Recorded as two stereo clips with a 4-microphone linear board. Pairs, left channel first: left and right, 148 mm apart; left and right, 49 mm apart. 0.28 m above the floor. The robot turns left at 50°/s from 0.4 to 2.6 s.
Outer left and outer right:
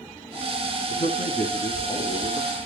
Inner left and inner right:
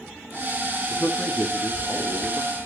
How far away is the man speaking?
About 2.5 m.